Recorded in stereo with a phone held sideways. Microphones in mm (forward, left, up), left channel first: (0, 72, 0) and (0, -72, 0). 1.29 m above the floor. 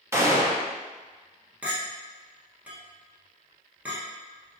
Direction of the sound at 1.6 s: 10° right (ahead or behind).